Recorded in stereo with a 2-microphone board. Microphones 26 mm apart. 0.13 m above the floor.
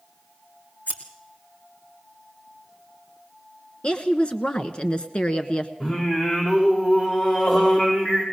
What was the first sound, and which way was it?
Scissors, 75° left (ahead or behind).